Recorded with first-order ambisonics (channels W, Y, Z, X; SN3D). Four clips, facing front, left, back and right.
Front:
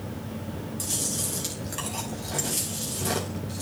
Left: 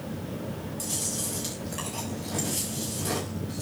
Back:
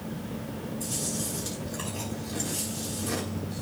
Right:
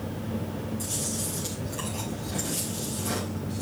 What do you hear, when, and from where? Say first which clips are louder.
0.8 s chewing: even, front 3 dB; 15° left, 5.5 m